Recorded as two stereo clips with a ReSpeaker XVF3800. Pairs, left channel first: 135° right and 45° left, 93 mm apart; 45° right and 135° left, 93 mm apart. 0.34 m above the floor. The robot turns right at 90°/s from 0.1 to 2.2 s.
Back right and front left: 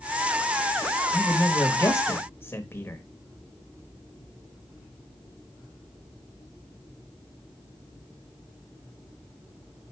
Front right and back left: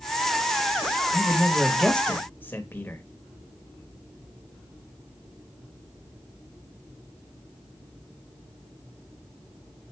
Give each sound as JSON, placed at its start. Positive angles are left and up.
{"t": 1.1, "sound": "a man speaking", "azimuth_deg": 170, "distance_m": 1.0}